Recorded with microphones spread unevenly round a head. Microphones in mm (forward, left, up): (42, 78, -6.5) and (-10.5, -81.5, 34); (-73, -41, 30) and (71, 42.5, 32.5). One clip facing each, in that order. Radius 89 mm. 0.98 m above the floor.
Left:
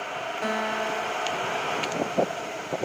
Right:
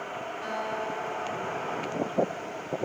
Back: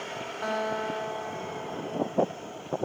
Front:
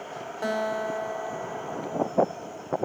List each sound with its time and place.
0.4 s a guitar: 90° left, 5 m